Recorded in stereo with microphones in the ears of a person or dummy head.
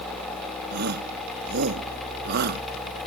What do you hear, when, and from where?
0.7 s a shout: 55° right (ahead or behind)